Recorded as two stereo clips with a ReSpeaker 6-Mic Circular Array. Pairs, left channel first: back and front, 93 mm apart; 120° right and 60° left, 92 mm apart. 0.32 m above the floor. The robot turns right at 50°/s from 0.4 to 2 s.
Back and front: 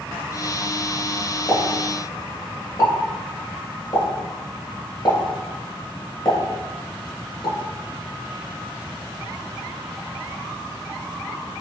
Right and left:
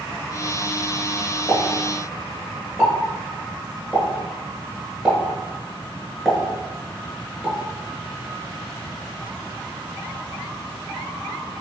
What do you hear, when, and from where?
1.5 s a pop: 120° left, 1.2 m; by 7.5 s 145° left, 1.2 m